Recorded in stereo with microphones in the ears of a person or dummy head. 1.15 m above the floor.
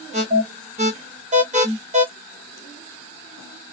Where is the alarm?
40° right (ahead or behind), 1.2 m.